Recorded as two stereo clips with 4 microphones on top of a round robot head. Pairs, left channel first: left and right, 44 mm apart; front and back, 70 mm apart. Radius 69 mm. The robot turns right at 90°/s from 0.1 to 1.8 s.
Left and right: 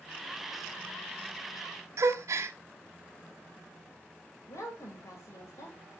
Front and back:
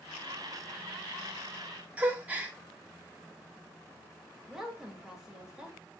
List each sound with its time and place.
2.0 s a gasp: 110° right, 1.1 m
4.5 s a woman speaking: 95° left, 3.5 m